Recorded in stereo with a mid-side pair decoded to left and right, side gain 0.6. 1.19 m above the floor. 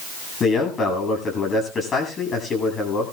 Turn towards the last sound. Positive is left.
turn(degrees=35)